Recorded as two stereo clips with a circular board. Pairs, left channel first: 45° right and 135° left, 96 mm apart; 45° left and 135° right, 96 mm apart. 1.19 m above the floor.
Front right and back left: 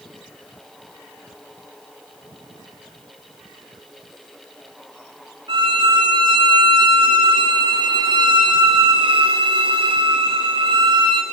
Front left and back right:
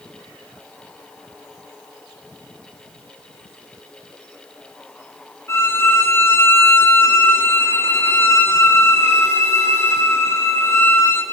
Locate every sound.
5.5 s a violin: 110° left, 3.5 m